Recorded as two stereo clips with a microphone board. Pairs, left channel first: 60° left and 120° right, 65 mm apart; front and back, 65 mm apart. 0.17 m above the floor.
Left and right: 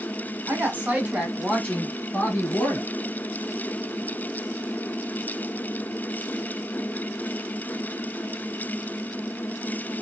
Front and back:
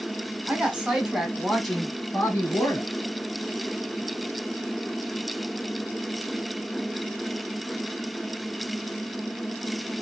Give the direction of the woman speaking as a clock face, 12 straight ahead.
5 o'clock.